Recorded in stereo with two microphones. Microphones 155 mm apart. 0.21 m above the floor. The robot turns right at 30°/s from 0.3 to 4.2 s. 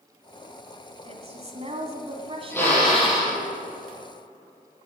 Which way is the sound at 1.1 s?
110° right.